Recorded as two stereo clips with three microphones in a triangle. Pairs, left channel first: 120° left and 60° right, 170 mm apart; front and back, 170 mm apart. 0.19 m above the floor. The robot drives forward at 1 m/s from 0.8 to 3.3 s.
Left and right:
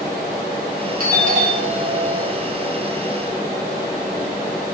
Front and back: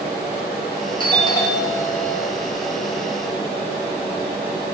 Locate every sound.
1.0 s a doorbell: 55° right, 3.5 m; by 2.4 s 80° right, 3 m